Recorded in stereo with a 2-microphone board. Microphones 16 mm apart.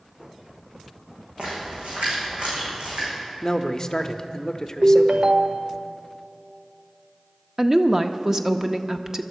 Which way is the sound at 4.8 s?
75° right (ahead or behind).